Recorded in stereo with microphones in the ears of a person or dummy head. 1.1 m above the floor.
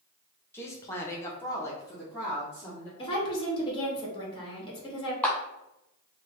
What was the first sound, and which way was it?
A woman speaking, 15° left (ahead or behind).